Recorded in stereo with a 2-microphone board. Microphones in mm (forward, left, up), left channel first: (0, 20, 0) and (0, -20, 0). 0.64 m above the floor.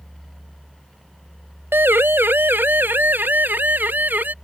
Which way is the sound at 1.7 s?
75° right (ahead or behind).